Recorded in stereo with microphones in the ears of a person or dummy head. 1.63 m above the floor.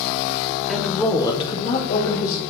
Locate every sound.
0.7 s a woman speaking: centre (ahead or behind), 1.1 m; by 2.4 s 50° left (ahead or behind), 2 m